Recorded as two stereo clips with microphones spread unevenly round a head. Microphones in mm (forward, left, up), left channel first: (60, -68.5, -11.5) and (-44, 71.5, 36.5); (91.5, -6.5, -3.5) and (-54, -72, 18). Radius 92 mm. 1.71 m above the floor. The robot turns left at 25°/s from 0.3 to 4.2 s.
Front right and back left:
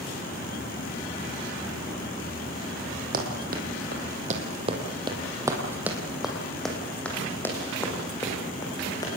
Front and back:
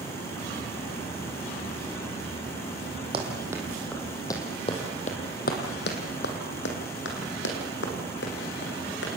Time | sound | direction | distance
3.1 | running footsteps | 150° left | 4 m